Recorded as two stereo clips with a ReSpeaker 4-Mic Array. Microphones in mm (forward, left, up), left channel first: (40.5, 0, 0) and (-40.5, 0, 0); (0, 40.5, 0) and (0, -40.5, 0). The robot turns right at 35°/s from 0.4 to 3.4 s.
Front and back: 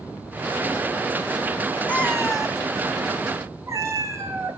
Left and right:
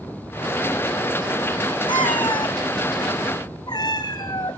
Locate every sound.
1.9 s a cat meowing: 70° left, 1.5 m; by 4.6 s 125° left, 1.5 m